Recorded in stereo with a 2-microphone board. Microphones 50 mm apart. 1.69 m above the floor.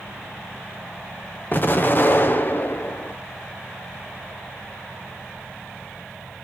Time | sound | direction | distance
1.5 | an explosion | 40° left (ahead or behind) | 1.0 m